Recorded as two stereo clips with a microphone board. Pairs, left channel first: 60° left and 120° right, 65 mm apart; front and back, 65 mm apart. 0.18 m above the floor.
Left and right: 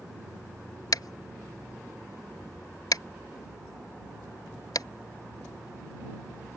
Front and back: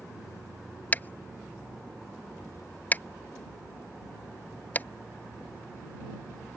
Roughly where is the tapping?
Ahead left.